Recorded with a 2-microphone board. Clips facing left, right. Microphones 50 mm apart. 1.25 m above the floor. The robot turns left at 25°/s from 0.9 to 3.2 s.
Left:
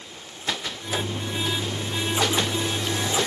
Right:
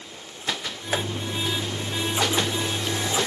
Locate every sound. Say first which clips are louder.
0.9 s tapping: right 2 dB; 45° right (ahead or behind), 1.0 m; by 1.0 s 50° right (ahead or behind), 1.0 m